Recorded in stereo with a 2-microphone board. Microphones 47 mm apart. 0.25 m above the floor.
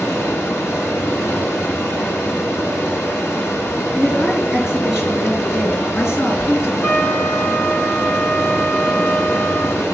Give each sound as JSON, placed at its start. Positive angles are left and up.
{"t": 0.0, "sound": "running water", "side_deg": 65, "distance_m": 2.0}
{"t": 3.9, "sound": "a woman speaking", "side_deg": 65, "distance_m": 3.5}
{"t": 6.8, "sound": "a trumpet", "side_deg": 45, "distance_m": 0.9}